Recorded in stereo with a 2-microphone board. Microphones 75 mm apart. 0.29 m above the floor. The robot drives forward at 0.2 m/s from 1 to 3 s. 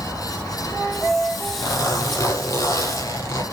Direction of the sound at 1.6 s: 45° left (ahead or behind).